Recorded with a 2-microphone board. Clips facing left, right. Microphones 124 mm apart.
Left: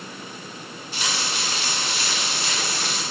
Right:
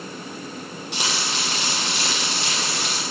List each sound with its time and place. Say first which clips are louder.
0.9 s frying: right 1 dB; 75° right (ahead or behind), 6 m